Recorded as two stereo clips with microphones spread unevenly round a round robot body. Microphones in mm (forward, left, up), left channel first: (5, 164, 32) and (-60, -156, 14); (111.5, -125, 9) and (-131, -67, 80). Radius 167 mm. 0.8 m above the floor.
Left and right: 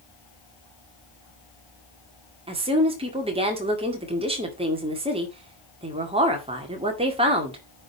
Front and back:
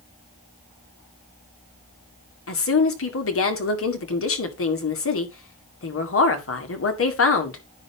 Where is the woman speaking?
30° right, 2 m.